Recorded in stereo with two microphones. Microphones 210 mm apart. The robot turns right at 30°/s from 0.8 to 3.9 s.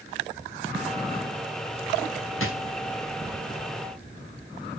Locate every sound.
2.4 s a drawer: 80° left, 1.0 m